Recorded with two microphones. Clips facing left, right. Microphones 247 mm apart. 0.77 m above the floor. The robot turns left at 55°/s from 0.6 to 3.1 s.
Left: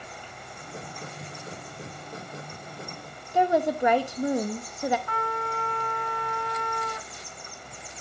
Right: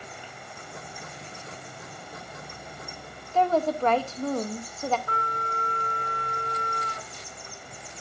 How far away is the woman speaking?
About 0.6 m.